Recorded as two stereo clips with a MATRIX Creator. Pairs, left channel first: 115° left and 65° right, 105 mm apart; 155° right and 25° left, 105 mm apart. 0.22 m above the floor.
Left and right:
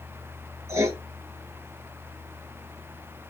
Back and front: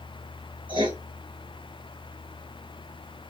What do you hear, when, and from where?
0.7 s writing: 10° right, 0.9 m